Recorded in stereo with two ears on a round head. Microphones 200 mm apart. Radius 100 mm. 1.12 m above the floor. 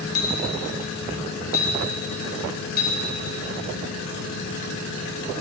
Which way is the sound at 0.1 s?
45° left (ahead or behind).